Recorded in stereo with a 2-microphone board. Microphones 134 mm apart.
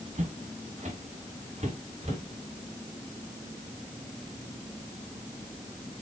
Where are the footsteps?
65° right (ahead or behind), 3.5 m; by 2.2 s 50° right (ahead or behind), 4.5 m.